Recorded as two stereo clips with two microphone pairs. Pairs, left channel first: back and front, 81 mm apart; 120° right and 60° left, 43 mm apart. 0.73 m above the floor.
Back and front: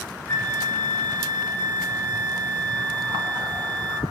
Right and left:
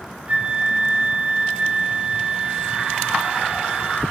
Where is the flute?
115° left, 1.0 m.